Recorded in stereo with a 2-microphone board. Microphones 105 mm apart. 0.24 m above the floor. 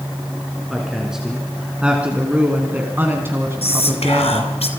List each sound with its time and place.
0.7 s a woman speaking: 5° right (ahead or behind), 3 m; by 4.5 s 35° right (ahead or behind), 2 m
3.6 s whispering: 70° left (ahead or behind), 3 m